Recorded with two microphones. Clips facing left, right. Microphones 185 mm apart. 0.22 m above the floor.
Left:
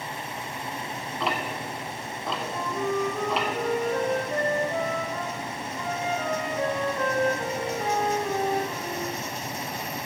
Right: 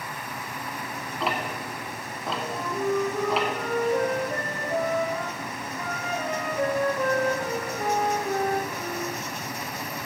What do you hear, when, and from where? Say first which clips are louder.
1.2 s ticking: even; centre (ahead or behind), 0.9 m
2.5 s a flute: right 2 dB; 10° right (ahead or behind), 1.9 m